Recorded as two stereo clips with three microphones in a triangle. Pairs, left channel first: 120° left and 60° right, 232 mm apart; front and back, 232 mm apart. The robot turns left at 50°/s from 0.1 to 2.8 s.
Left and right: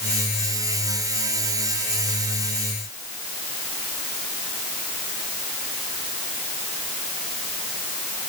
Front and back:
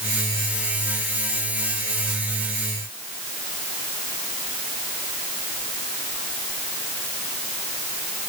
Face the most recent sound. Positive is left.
No sound to turn to.